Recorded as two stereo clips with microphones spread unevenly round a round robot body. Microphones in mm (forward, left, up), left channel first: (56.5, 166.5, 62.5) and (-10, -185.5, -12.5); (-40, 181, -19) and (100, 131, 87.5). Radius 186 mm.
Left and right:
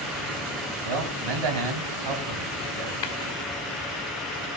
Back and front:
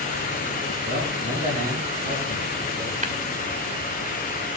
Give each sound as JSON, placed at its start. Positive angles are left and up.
{"t": 0.8, "sound": "a man speaking", "azimuth_deg": -95, "distance_m": 3.5}
{"t": 3.0, "sound": "tapping", "azimuth_deg": 55, "distance_m": 1.7}